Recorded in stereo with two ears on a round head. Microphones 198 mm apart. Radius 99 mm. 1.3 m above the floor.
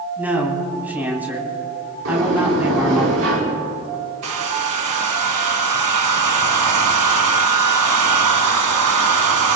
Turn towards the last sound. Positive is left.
turn(degrees=-75)  # may be behind; listen again after turning